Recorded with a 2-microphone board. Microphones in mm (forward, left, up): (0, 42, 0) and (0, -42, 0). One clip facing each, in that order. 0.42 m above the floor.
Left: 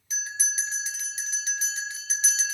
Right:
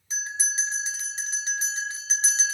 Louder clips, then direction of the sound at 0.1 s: Right 2 dB; 30° right (ahead or behind).